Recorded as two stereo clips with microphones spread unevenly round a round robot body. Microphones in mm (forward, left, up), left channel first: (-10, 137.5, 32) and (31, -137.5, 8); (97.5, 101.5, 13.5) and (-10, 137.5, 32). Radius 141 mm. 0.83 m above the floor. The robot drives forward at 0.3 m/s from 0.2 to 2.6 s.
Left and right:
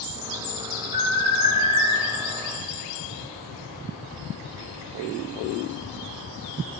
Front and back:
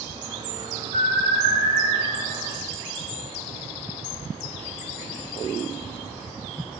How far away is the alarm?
About 4 m.